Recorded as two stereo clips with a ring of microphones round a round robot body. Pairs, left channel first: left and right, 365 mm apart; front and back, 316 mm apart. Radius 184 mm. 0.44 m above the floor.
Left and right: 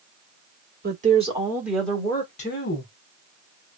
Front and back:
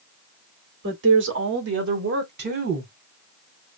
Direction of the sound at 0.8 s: 145° right.